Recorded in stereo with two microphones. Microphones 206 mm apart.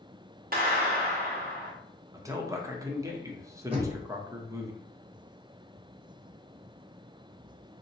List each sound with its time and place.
0.5 s a clap: 45° right (ahead or behind), 0.9 m
2.1 s a man speaking: 15° right (ahead or behind), 0.7 m
3.7 s knocking: 25° right (ahead or behind), 0.9 m